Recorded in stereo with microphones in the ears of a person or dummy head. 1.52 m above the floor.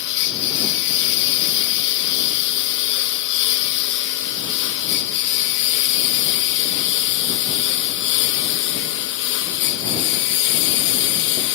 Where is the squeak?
No squeak in this recording.